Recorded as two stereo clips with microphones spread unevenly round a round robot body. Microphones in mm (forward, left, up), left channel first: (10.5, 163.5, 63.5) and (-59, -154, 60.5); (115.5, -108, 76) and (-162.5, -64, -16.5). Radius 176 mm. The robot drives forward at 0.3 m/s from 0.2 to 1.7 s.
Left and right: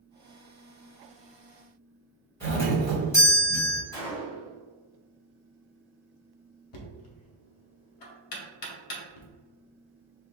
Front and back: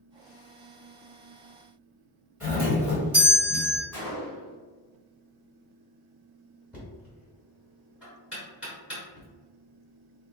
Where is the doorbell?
150° left, 1.4 m.